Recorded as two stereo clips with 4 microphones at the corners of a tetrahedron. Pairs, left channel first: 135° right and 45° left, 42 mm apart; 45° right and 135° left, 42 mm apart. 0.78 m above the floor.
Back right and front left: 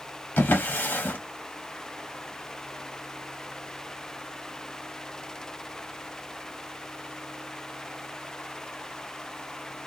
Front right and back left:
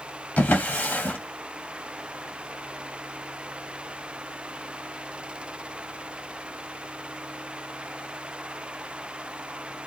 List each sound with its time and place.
0.4 s a drawer: 90° right, 0.8 m